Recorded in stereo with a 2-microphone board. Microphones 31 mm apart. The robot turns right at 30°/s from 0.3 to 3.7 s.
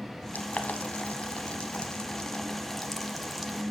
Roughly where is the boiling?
Left.